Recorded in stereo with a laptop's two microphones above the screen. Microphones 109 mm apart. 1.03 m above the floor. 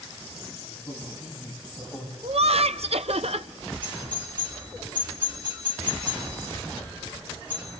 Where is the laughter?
70° right (ahead or behind), 0.7 m.